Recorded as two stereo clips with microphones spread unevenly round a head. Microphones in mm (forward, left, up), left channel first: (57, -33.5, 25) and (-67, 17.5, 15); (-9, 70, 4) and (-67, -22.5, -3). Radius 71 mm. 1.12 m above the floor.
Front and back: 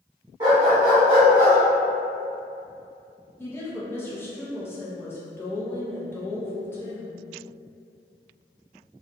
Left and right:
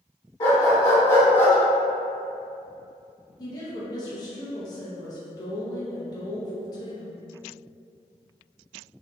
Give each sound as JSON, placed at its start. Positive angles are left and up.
{"t": 0.4, "sound": "a dog barking", "azimuth_deg": 95, "distance_m": 1.3}
{"t": 3.4, "sound": "a woman speaking", "azimuth_deg": 40, "distance_m": 0.7}